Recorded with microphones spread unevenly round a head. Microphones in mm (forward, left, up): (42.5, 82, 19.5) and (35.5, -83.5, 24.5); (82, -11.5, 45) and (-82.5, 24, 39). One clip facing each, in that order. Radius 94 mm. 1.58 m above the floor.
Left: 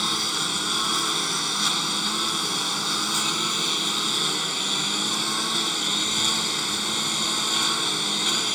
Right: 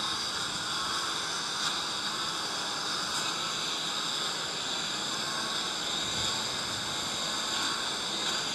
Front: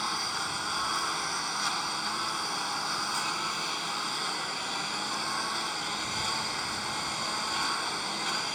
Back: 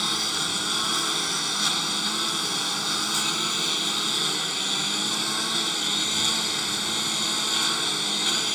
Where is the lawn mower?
120° left.